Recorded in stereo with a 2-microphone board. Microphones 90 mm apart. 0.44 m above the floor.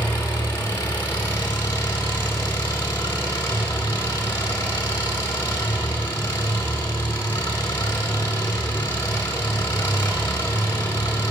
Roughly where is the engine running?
Left.